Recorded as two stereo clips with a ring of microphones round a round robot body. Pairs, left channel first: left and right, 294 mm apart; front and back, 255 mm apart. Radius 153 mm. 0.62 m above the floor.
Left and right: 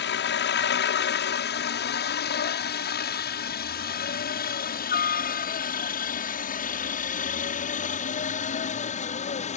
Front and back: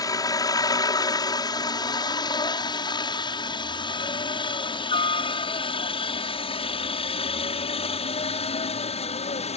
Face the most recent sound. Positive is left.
turn(degrees=45)